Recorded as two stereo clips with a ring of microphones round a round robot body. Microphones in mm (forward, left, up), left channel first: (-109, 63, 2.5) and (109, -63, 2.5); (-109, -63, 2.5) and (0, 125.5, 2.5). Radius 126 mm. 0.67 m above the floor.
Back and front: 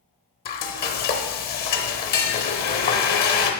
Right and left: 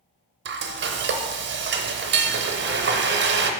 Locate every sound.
0.5 s frying: 95° left, 0.7 m